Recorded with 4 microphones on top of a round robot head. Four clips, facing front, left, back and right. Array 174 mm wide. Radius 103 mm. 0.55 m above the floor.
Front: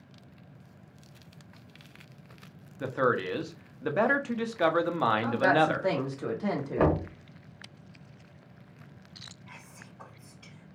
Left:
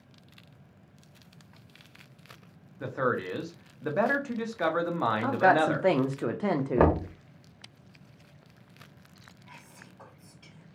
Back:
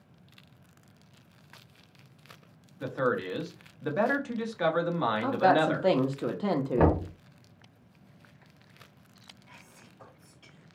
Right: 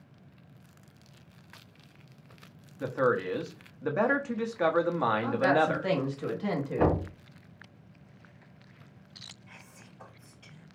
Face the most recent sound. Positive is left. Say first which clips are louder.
# left 5 dB, front 4 dB
turn(degrees=45)